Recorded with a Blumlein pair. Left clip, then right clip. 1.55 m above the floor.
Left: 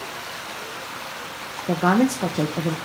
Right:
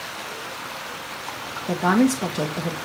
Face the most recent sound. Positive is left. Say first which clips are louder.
# even
turn(degrees=10)